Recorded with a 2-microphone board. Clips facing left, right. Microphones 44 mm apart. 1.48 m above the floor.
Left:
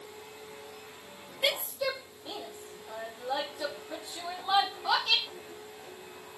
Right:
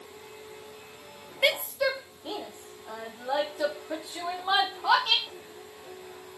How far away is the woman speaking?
About 1.0 m.